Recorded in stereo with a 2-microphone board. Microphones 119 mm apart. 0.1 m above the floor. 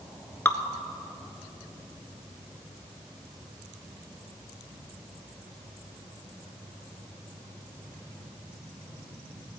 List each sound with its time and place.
0.5 s dripping: 20° left (ahead or behind), 0.6 m